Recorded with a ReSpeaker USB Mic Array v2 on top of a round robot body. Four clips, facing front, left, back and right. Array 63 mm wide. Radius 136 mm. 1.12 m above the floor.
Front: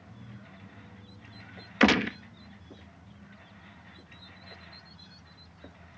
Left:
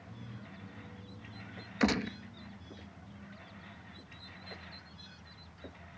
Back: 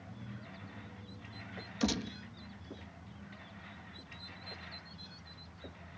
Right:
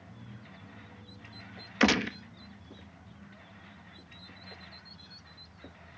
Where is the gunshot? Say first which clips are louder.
Right 5 dB, front 12 dB; 20° right.